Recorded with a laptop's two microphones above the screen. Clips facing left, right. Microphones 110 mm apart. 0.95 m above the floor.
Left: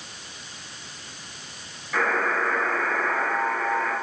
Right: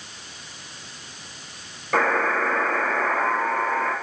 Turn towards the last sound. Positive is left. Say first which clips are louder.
# right 3 dB
turn(degrees=-75)  # may be behind; listen again after turning